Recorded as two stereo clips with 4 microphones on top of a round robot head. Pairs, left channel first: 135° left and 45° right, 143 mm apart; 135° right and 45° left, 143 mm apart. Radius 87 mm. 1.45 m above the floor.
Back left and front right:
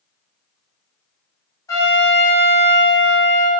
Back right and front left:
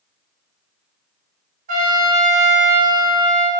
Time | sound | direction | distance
1.7 | a trumpet | 65° left | 0.7 m